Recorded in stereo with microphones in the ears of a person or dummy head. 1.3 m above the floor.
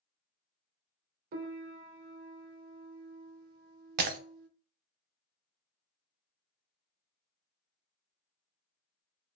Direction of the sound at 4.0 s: 50° right (ahead or behind).